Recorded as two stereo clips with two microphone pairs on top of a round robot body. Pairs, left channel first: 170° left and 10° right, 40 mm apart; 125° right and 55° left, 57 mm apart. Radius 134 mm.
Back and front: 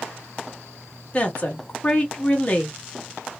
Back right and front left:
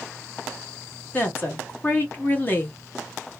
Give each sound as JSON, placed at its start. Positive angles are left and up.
{"t": 1.1, "sound": "a woman speaking", "azimuth_deg": -160, "distance_m": 1.3}